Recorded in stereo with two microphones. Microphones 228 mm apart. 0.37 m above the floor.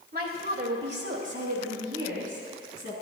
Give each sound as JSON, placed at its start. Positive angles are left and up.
{"t": 0.1, "sound": "a woman speaking", "side_deg": -40, "distance_m": 1.2}